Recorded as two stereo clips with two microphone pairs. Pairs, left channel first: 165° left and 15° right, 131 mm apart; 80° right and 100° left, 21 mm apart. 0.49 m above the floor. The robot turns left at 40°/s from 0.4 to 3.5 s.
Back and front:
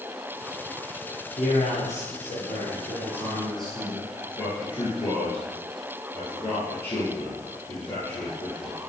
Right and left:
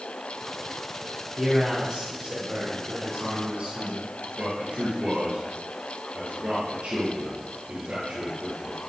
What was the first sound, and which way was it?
A man speaking, 160° right.